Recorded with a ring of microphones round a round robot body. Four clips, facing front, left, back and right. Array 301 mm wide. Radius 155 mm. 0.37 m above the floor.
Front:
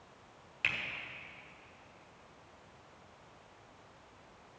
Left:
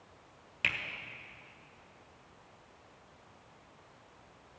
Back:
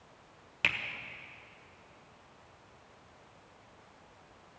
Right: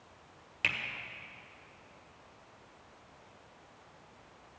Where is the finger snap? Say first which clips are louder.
Even, back 4 dB; 175° left, 1.6 m.